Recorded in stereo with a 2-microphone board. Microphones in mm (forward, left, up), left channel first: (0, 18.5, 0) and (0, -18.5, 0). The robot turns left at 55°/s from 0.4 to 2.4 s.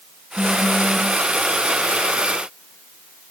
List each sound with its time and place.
0.4 s a phone buzzing: 105° left, 2.5 m; by 1.1 s 65° left, 2.5 m